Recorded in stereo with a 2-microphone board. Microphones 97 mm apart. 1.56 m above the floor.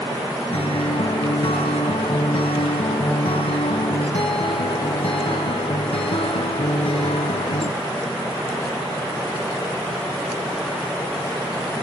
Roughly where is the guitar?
Left.